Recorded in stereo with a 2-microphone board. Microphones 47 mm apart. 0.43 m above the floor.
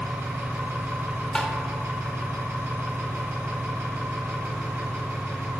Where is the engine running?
55° right (ahead or behind), 1.3 m.